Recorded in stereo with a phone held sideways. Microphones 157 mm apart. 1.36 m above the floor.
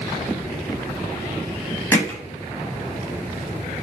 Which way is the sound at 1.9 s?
20° left (ahead or behind).